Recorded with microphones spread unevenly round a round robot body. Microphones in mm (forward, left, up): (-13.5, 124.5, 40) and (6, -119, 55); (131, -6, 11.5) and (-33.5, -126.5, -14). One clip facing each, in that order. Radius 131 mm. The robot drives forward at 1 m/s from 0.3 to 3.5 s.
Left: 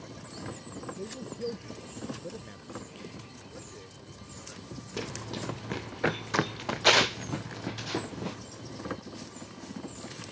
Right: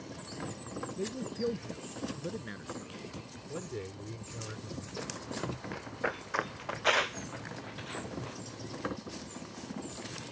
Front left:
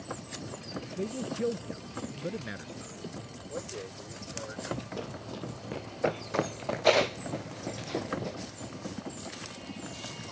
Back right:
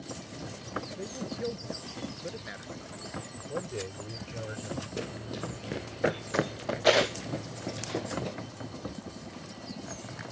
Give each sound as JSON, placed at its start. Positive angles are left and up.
{"t": 1.0, "sound": "a man speaking", "azimuth_deg": -15}
{"t": 3.5, "sound": "a man speaking", "azimuth_deg": -85}
{"t": 5.0, "sound": "running footsteps", "azimuth_deg": 140}